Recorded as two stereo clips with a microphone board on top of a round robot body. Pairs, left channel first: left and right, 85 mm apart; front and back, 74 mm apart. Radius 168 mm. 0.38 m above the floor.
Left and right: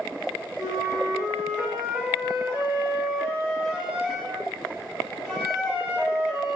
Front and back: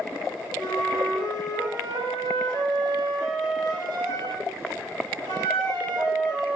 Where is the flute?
Straight behind, 0.8 m.